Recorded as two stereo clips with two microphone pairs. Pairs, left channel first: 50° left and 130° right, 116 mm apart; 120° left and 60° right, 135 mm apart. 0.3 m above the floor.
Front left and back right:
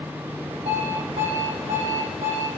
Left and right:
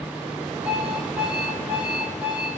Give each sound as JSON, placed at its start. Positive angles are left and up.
{"t": 0.7, "sound": "an alarm clock", "azimuth_deg": -140, "distance_m": 6.5}